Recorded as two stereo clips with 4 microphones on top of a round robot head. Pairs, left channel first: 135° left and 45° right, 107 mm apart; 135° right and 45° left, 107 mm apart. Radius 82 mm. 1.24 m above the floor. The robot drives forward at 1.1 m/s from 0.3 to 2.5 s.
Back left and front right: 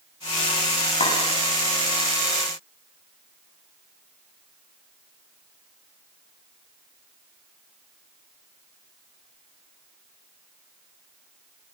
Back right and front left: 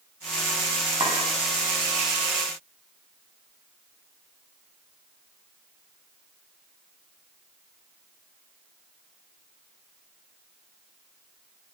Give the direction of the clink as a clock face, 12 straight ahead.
9 o'clock.